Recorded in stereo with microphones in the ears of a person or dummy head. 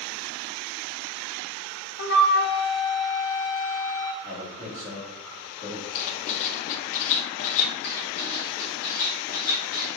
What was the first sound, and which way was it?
A flute, 50° left (ahead or behind).